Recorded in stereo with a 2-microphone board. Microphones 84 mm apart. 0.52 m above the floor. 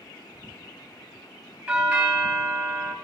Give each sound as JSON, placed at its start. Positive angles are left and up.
{"t": 1.7, "sound": "a doorbell", "side_deg": -10, "distance_m": 3.0}